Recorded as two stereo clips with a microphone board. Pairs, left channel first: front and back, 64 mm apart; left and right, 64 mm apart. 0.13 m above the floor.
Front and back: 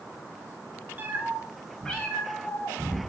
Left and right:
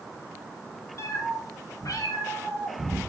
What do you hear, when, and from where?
1.0 s a cat meowing: 125° left, 1.5 m; by 3.0 s 45° left, 2.5 m